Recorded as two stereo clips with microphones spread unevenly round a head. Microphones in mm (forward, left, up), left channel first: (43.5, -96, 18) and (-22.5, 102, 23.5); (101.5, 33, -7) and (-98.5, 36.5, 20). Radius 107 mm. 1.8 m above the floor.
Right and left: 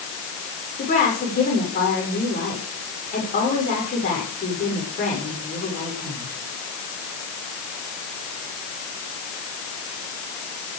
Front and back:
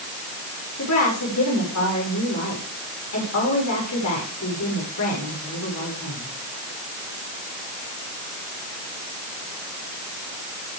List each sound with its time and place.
0.8 s a woman speaking: 20° right, 7.5 m